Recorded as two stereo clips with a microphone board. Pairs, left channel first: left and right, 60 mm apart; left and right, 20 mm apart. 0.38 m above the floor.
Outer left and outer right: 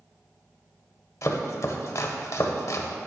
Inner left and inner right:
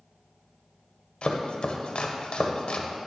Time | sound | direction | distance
1.2 | chopping | 55° left (ahead or behind) | 0.6 m